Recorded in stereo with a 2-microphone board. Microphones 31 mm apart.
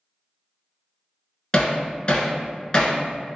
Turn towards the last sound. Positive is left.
turn(degrees=30)  # may be behind; listen again after turning